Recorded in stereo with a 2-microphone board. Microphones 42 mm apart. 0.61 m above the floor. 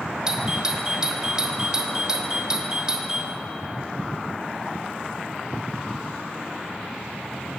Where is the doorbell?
15° right (ahead or behind), 2.5 m.